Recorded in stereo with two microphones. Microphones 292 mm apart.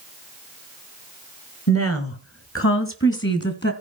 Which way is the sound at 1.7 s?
55° left (ahead or behind).